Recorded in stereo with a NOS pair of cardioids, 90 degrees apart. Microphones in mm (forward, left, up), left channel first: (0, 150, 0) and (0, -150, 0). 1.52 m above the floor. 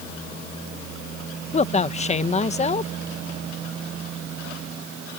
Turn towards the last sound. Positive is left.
turn(degrees=20)